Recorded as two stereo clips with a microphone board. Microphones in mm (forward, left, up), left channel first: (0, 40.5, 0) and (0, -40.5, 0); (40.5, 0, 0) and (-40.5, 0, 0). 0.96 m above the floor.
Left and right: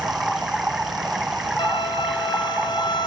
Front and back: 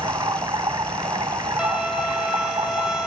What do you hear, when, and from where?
0.0 s running water: 170° right, 1.5 m
1.6 s a violin: 100° left, 5.5 m